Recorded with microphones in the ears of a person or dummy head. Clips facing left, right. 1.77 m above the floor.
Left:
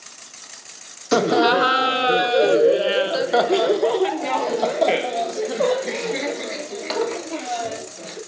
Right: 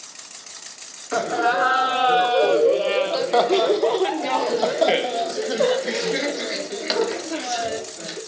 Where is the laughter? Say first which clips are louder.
Left 5 dB; 45° left (ahead or behind), 0.9 m; by 8.2 s 10° right (ahead or behind), 4 m.